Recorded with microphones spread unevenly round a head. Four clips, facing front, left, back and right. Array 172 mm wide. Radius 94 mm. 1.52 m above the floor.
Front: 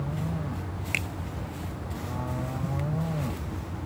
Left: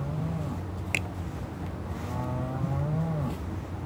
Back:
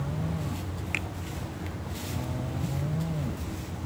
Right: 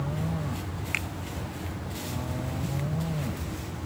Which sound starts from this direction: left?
A finger snap, at 0.9 s.